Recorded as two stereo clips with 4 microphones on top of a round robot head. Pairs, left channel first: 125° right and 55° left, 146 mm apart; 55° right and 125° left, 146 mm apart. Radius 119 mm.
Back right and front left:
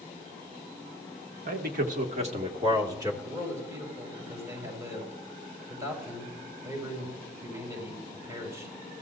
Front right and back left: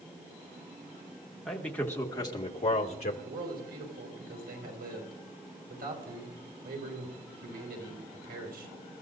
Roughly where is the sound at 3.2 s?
Behind left.